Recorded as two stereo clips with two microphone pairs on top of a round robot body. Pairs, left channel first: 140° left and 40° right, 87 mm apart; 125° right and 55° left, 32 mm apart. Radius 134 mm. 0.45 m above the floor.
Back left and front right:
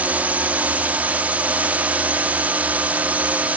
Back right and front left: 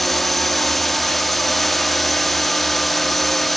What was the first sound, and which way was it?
A drone, 80° right.